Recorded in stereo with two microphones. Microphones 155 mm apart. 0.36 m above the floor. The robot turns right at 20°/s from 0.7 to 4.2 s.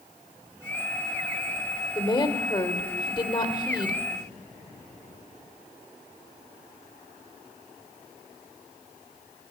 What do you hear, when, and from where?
1.9 s a woman speaking: 25° left (ahead or behind), 0.9 m